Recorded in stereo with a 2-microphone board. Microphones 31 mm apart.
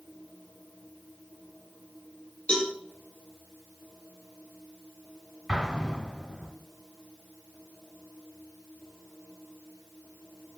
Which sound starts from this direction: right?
An explosion, at 5.5 s.